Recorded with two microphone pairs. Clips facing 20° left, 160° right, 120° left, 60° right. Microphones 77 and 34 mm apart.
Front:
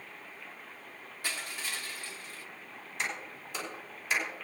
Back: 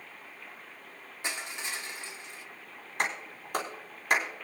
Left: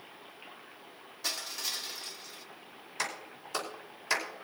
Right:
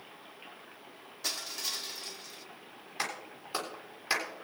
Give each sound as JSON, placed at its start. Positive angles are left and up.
{"t": 1.2, "sound": "crushing", "azimuth_deg": -150, "distance_m": 0.9}
{"t": 3.0, "sound": "a clap", "azimuth_deg": -130, "distance_m": 4.0}